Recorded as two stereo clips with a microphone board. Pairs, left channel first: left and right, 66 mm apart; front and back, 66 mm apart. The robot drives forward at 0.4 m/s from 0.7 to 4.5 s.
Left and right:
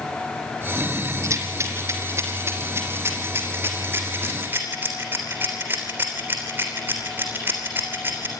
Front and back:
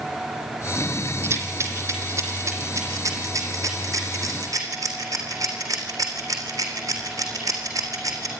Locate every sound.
1.2 s a rattle: 130° right, 2.5 m; by 8.3 s 150° right, 3.5 m